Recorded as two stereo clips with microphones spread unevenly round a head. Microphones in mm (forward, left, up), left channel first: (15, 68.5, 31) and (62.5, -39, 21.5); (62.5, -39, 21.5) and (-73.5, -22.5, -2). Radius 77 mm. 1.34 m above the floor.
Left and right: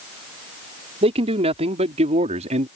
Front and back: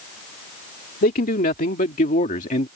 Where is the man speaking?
30° right; by 2.7 s 40° right.